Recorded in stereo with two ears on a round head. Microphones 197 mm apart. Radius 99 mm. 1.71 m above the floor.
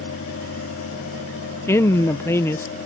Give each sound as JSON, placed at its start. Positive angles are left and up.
{"t": 1.7, "sound": "a woman speaking", "side_deg": 10}